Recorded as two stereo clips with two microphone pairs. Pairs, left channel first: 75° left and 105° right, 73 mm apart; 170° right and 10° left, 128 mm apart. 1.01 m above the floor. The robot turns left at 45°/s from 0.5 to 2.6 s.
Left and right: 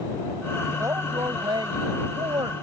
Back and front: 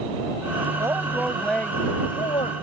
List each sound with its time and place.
0.8 s a woman speaking: 55° right; by 2.5 s 130° right